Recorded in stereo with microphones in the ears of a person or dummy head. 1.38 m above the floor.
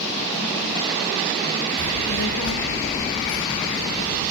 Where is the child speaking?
70° left (ahead or behind), 0.9 m; by 4.2 s 80° left, 3.5 m.